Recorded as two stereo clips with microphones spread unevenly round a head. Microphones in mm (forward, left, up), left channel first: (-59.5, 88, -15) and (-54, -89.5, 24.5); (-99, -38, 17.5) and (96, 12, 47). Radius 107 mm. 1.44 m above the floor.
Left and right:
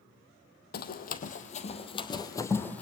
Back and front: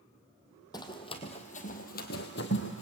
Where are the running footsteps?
120° left, 2.0 m; by 2.8 s 175° right, 1.8 m.